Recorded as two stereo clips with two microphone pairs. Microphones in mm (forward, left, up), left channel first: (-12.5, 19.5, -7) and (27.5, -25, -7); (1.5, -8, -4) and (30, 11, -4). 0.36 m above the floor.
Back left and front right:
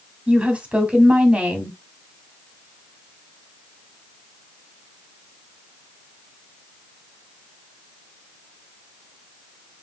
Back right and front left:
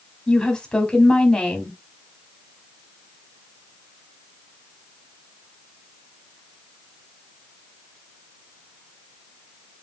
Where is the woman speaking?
95° right, 1.3 m.